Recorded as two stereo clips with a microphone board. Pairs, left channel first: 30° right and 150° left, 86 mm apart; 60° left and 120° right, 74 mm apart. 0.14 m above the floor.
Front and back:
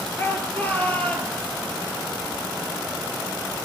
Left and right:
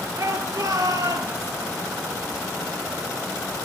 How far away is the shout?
About 3 m.